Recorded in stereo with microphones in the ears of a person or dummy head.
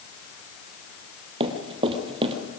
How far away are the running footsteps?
About 2 m.